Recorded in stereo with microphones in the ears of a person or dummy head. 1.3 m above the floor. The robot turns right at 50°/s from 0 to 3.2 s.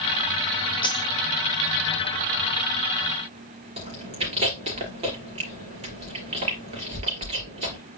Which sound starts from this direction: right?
Chewing, at 3.8 s.